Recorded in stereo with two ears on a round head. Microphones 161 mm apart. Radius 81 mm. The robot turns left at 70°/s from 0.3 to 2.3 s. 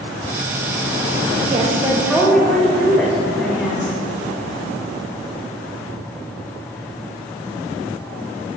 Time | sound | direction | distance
1.5 | a woman speaking | 130° right | 1.6 m